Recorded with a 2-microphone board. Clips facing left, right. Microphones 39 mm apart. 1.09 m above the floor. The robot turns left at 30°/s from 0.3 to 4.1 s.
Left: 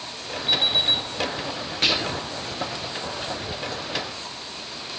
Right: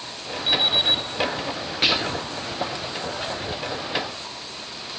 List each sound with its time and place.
0.5 s an alarm clock: 75° right (ahead or behind), 5 m; by 1.0 s 60° right (ahead or behind), 5 m
1.8 s whispering: 10° right (ahead or behind), 0.7 m; by 2.3 s centre (ahead or behind), 0.7 m